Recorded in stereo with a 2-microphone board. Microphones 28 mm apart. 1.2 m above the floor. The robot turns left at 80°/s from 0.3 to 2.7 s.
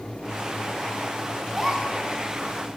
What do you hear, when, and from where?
1.5 s a gasp: straight ahead, 9 m; by 1.9 s 35° right, 9 m